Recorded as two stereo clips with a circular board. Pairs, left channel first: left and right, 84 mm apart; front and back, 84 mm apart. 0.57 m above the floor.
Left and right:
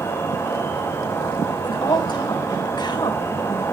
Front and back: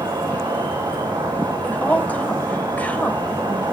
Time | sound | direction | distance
0.0 | an insect | 145° left | 5.5 m
1.6 | a woman speaking | 70° left | 2.5 m